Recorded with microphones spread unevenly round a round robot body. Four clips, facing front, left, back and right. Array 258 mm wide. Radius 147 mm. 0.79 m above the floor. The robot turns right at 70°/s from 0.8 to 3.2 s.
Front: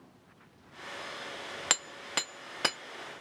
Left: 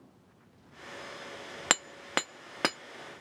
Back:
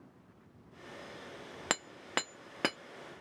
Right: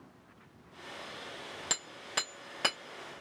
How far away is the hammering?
About 0.6 m.